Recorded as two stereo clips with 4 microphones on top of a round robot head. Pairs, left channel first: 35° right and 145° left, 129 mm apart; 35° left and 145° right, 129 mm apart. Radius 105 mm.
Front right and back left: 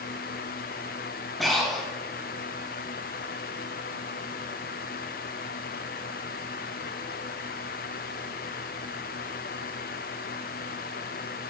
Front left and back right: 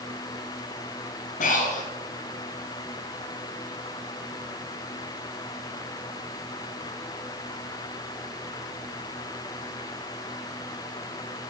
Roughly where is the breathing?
Ahead left.